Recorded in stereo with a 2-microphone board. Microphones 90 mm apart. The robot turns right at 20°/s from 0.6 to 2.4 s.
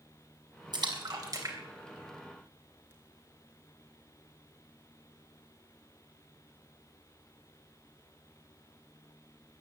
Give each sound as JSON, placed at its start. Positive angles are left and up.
{"t": 0.7, "sound": "a splash", "side_deg": -55, "distance_m": 3.0}